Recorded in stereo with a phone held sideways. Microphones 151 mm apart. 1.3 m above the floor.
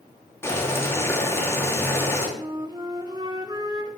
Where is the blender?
No blender in this recording.